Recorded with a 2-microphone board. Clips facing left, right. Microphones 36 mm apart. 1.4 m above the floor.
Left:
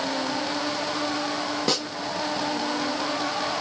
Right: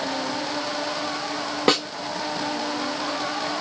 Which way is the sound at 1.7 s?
45° right (ahead or behind).